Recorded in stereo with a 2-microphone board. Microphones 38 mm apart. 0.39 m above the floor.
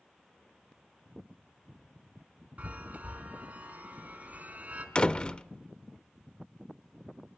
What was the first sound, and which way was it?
A chime, 40° right (ahead or behind).